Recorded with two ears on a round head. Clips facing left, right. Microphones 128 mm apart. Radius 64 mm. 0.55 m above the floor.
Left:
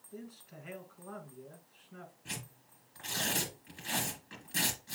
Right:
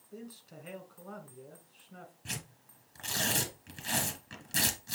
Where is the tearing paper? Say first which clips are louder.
Right 1 dB; 50° right (ahead or behind), 2.5 m.